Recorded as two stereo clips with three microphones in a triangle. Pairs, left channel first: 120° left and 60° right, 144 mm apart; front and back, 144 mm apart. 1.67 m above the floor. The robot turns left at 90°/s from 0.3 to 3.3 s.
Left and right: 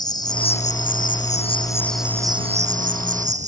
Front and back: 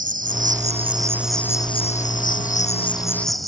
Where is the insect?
Straight behind; by 3.5 s 90° right.